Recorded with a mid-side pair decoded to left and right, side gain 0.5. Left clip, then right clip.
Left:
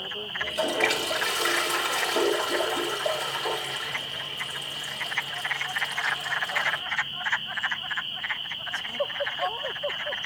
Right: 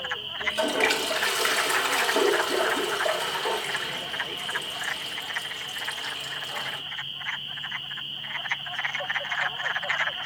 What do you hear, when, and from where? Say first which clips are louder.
0.4 s a toilet flushing: right 1 dB; 30° right, 3 m